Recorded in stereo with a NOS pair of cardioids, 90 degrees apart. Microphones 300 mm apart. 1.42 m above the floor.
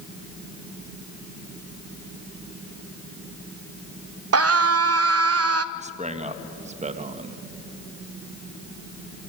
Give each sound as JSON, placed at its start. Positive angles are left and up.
{"t": 4.3, "sound": "a scream", "azimuth_deg": -50, "distance_m": 1.1}
{"t": 5.8, "sound": "a man speaking", "azimuth_deg": -25, "distance_m": 1.7}